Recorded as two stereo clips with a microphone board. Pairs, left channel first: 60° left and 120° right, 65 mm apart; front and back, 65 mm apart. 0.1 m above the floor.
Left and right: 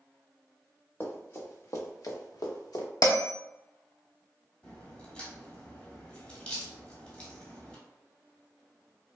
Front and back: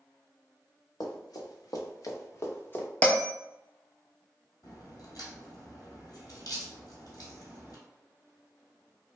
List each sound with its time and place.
1.0 s running footsteps: 5° left, 1.2 m; by 2.9 s 60° left, 1.0 m
3.0 s a bell: 65° left, 0.6 m
4.6 s a crack: 10° right, 1.3 m